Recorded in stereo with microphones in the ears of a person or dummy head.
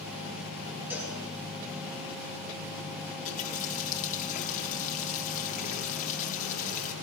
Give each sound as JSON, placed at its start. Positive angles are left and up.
{"t": 0.9, "sound": "a cowbell", "side_deg": -5, "distance_m": 8.5}
{"t": 3.2, "sound": "a running tap", "side_deg": 45, "distance_m": 1.9}